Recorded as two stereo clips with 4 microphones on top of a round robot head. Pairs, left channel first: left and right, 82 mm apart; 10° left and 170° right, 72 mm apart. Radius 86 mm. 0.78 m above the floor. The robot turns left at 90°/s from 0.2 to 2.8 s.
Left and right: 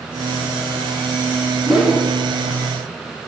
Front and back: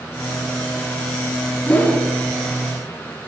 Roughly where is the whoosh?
Ahead.